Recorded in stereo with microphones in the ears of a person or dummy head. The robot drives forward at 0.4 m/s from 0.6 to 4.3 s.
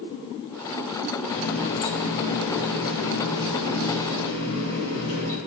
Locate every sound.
1.3 s a running tap: 55° left (ahead or behind), 1.6 m; by 5.4 s 65° left (ahead or behind), 1.5 m